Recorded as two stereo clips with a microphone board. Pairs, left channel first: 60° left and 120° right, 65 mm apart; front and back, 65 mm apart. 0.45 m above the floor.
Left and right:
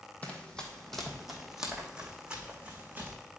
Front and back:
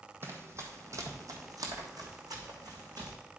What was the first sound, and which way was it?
Running footsteps, 130° left.